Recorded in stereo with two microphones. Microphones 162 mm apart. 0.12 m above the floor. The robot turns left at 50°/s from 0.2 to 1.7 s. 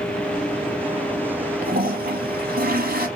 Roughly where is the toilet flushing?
Right.